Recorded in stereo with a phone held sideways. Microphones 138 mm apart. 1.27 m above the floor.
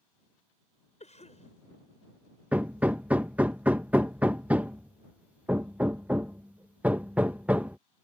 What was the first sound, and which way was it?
A cough, 55° left (ahead or behind).